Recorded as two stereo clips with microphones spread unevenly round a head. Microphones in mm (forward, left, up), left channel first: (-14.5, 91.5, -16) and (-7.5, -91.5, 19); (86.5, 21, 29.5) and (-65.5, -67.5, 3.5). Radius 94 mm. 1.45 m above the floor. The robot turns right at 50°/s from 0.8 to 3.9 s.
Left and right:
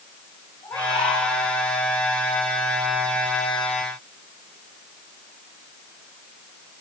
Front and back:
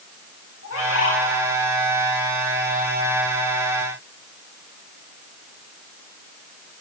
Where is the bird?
15° left, 3.5 m; by 1.2 s 40° left, 3.5 m.